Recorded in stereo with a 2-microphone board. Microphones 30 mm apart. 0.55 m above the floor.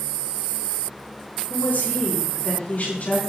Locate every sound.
1.5 s a woman speaking: 65° left (ahead or behind), 6.5 m; by 3.2 s 50° left (ahead or behind), 6.5 m